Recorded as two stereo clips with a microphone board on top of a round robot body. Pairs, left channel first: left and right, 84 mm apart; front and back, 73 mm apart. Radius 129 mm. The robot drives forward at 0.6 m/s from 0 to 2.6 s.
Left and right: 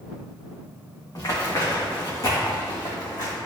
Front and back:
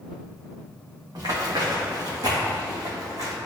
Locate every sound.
1.1 s running footsteps: 140° left, 2 m; by 3.4 s 130° left, 1.8 m